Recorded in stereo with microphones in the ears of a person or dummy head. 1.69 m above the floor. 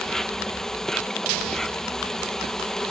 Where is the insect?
5° left (ahead or behind).